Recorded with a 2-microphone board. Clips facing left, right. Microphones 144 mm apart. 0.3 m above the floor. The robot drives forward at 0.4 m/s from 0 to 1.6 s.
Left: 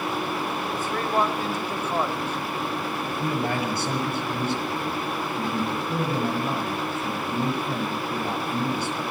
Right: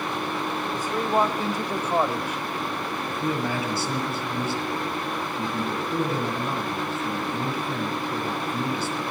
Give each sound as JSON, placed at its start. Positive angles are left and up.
{"t": 0.7, "sound": "a man speaking", "side_deg": -15, "distance_m": 0.9}
{"t": 3.1, "sound": "a man speaking", "side_deg": 60, "distance_m": 6.5}